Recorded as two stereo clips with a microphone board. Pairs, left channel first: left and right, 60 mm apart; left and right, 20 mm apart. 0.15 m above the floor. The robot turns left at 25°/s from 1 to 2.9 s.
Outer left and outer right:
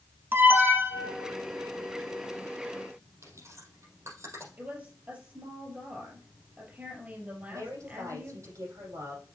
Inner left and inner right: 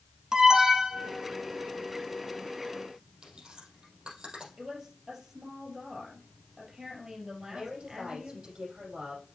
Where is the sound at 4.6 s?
25° right (ahead or behind), 3.5 m.